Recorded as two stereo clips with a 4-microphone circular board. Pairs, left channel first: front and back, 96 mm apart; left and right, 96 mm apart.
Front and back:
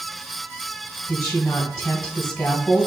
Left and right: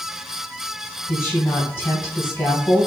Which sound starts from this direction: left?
A woman speaking, at 1.1 s.